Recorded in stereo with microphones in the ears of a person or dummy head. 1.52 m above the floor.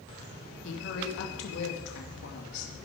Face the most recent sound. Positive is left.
turn(degrees=75)  # may be behind; listen again after turning